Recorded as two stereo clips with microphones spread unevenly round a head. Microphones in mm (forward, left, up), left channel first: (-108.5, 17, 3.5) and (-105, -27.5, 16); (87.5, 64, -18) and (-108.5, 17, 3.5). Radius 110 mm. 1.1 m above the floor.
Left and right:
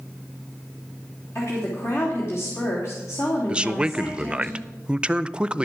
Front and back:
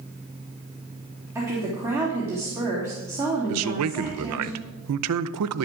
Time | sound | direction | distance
1.4 | a woman speaking | 115° left | 3 m
3.5 | a man speaking | 165° right | 0.6 m